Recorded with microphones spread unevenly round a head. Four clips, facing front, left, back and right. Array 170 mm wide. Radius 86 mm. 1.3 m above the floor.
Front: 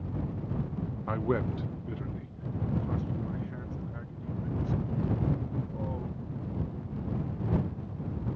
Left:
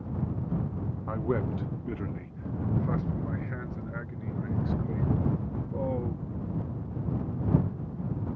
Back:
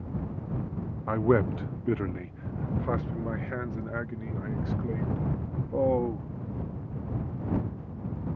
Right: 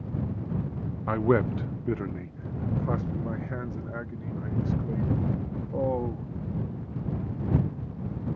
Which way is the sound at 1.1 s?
150° right.